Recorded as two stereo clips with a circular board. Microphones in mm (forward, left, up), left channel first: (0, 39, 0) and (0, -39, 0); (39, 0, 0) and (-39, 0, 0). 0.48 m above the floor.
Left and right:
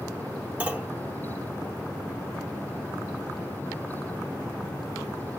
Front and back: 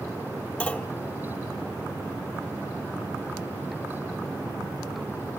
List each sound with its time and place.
0.6 s a clunk: 50° right, 1.4 m